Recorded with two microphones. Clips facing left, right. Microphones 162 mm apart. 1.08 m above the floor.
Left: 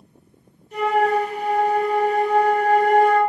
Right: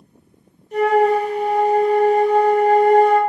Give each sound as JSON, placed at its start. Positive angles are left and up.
{"t": 0.7, "sound": "a flute", "side_deg": -35, "distance_m": 0.8}